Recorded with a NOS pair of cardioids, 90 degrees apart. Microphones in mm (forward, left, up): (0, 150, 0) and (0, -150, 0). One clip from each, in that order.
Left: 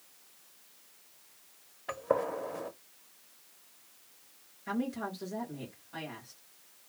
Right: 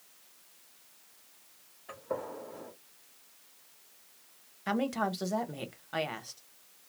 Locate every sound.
1.9 s a gunshot: 60° left, 0.8 m
4.7 s a woman speaking: 70° right, 1.0 m